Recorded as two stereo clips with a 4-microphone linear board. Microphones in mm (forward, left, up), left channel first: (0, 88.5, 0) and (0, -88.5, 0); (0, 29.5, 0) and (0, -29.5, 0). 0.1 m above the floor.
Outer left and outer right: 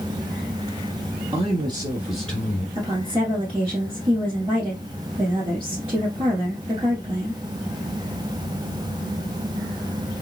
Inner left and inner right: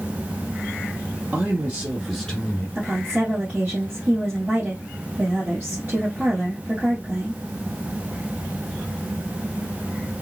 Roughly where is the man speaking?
Right.